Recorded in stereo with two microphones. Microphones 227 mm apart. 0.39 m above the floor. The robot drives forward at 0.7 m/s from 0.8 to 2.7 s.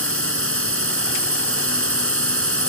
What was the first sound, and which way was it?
A drone, 70° right (ahead or behind).